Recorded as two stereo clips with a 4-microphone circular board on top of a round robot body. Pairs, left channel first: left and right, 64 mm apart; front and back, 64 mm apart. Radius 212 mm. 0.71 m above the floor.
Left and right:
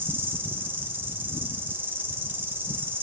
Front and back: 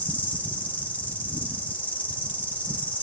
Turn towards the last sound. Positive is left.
turn(degrees=-50)